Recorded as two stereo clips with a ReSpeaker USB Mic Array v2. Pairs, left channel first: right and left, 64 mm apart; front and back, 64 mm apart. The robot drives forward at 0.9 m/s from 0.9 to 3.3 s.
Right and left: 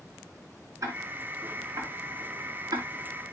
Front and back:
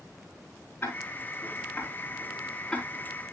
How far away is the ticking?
About 4.5 m.